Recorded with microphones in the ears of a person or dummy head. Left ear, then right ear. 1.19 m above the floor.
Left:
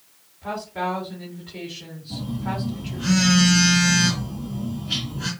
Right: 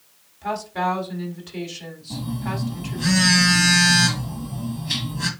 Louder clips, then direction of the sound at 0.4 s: Right 3 dB; 85° right.